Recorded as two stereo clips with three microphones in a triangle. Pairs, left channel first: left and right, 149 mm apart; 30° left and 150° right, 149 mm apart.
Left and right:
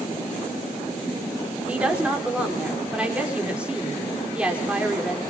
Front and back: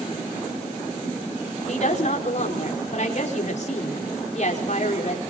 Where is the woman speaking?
10° right, 5 m.